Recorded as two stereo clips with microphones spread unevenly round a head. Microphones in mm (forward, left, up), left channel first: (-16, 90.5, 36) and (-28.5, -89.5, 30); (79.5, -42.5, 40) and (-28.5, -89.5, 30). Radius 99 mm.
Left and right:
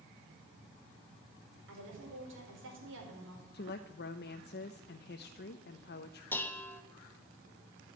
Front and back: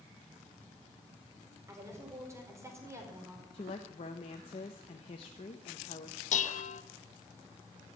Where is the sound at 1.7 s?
90° right, 4.5 m.